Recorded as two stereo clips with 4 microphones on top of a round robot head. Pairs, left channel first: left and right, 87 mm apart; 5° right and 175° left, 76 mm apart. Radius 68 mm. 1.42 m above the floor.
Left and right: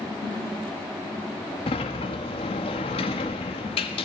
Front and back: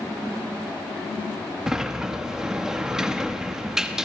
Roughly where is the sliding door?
Left.